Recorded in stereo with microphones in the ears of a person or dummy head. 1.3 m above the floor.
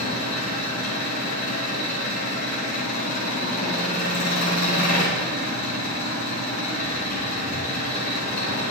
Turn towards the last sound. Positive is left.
turn(degrees=60)  # may be behind; listen again after turning